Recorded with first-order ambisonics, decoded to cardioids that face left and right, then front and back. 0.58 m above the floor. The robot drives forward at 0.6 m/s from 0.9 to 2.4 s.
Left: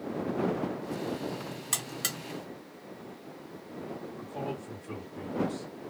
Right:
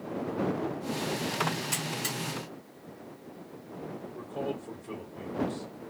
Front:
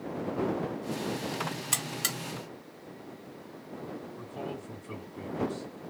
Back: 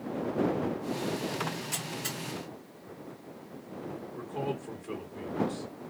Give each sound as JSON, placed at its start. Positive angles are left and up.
{"t": 1.7, "sound": "a buzzer", "azimuth_deg": 20, "distance_m": 0.9}
{"t": 4.1, "sound": "a man speaking", "azimuth_deg": 175, "distance_m": 1.6}